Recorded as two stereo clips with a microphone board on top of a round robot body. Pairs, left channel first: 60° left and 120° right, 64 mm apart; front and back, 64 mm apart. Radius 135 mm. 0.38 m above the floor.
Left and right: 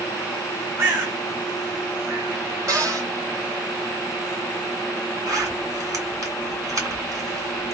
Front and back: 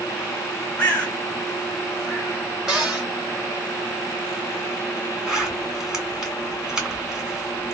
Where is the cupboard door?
100° right, 2 m.